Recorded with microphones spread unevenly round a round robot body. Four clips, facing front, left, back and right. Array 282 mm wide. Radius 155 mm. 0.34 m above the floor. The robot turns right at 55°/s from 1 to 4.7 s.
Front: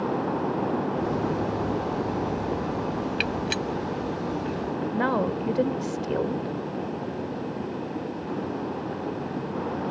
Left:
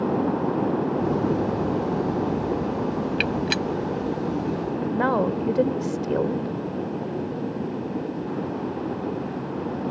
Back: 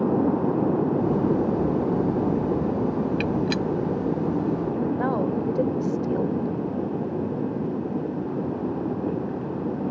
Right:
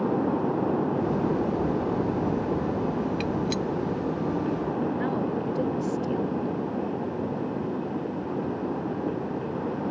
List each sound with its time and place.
3.2 s a gunshot: 75° left; by 3.6 s 100° left
4.9 s a woman speaking: 85° left